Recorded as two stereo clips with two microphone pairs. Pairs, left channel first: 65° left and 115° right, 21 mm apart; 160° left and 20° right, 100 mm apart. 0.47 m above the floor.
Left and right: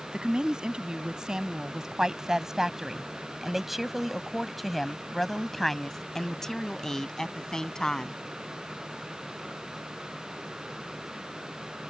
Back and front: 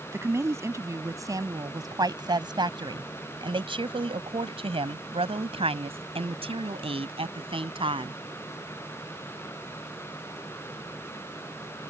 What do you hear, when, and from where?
0.1 s a woman speaking: 80° right; by 8.2 s 5° left